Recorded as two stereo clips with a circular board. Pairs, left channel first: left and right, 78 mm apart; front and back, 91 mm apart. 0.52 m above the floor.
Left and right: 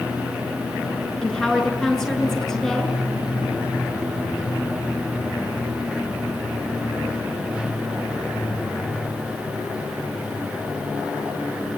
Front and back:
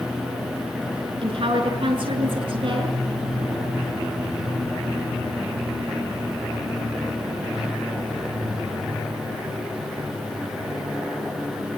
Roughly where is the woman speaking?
Behind.